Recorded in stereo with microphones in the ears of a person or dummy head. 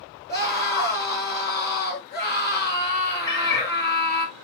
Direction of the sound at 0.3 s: 25° left (ahead or behind).